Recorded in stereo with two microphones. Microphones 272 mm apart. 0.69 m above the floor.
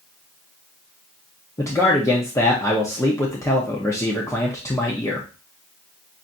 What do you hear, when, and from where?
1.6 s a man speaking: 10° left (ahead or behind), 0.7 m